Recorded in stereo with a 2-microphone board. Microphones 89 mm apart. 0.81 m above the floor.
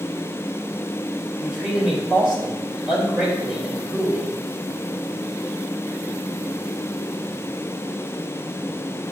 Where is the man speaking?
10° right (ahead or behind), 3.5 m.